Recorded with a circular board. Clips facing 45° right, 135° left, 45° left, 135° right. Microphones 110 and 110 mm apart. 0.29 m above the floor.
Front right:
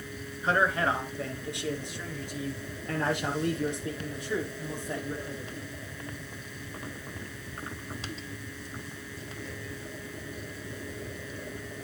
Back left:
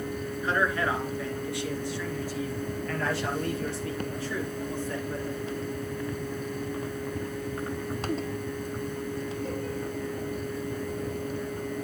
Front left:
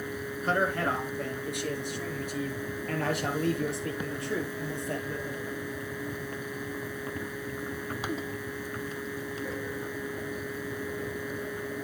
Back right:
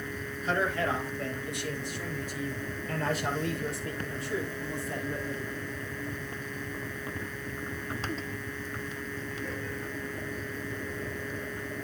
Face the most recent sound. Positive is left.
turn(degrees=30)